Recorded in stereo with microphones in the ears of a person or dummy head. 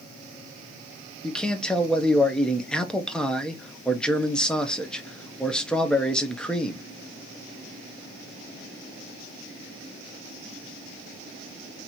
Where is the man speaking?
Centre (ahead or behind), 0.8 m.